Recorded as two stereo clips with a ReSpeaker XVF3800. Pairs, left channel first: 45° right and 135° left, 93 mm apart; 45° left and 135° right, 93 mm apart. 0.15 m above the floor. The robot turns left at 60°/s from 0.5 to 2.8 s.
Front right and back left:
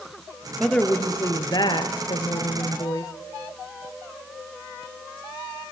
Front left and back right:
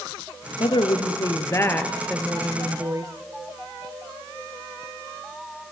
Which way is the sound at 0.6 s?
45° left.